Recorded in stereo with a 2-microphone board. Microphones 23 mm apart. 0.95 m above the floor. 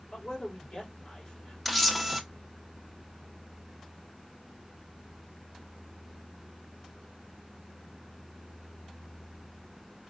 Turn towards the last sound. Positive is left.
turn(degrees=10)  # may be behind; listen again after turning